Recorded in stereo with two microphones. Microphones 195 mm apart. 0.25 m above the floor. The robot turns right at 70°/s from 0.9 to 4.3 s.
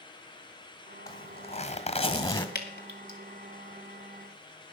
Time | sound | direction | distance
1.1 | a zipper | 35° left | 1.7 m
2.5 | dripping | 55° left (ahead or behind) | 2 m